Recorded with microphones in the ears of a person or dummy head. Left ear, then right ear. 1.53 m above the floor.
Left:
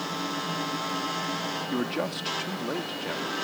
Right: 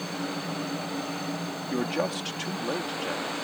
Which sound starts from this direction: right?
A man speaking, at 1.7 s.